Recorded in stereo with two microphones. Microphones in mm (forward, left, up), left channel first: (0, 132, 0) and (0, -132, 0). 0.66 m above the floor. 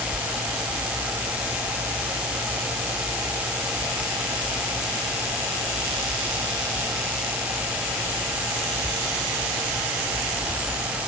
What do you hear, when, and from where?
Only background noise.